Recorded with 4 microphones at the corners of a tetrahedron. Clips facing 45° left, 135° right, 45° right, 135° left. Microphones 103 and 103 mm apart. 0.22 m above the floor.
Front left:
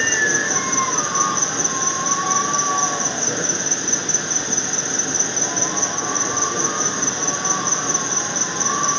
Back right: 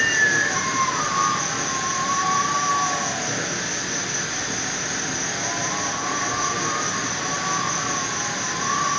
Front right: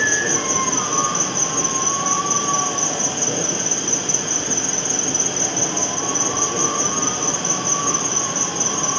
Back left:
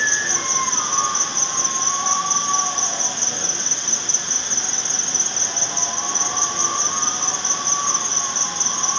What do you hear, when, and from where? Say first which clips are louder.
0.0 s an insect: even, front right 4 dB; 15° right, 1.1 m